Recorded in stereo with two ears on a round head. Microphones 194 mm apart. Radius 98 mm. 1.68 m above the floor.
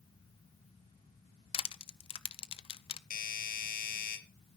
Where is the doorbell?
45° left (ahead or behind), 3.5 m.